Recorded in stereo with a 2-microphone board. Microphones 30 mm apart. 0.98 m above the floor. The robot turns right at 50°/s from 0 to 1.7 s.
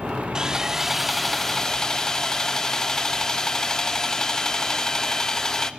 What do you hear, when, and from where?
0.3 s sawing: 35° right, 0.6 m; by 5.7 s 30° left, 0.6 m